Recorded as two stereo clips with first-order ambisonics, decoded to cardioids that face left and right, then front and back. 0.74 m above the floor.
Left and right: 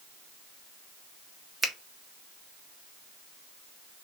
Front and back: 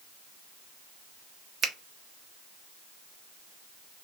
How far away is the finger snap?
About 0.6 m.